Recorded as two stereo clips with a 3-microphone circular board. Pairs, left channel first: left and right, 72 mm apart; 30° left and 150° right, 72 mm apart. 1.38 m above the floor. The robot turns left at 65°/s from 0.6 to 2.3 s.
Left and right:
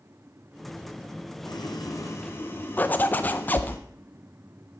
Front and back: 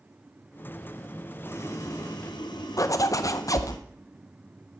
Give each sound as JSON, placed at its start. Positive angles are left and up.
{"t": 1.4, "sound": "boiling", "azimuth_deg": 85, "distance_m": 1.2}
{"t": 2.8, "sound": "a zipper", "azimuth_deg": 35, "distance_m": 0.6}